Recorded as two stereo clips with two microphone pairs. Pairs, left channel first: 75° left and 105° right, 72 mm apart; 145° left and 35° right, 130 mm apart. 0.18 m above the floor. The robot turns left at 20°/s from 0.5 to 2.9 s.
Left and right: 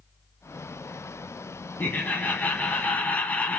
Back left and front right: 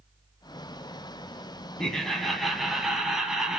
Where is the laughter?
65° left, 1.4 m; by 3.6 s 45° left, 1.4 m.